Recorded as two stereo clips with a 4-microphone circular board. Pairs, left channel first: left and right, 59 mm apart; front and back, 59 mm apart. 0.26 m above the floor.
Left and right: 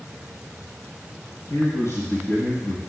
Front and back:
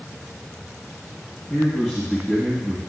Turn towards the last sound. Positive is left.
turn(degrees=95)